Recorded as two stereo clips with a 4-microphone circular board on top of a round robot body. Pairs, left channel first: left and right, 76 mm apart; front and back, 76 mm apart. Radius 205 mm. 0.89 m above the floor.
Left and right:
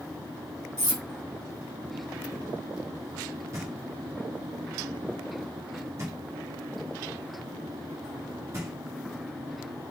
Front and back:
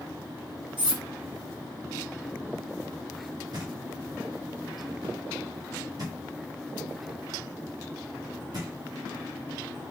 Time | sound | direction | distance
0.8 | cutlery clinking | 120° right | 2.5 m
3.5 | knocking | 140° right | 1.6 m